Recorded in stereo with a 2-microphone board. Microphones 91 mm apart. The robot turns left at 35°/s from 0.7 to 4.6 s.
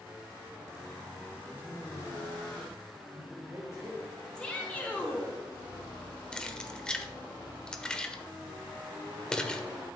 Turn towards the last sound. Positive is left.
turn(degrees=10)  # may be behind; listen again after turning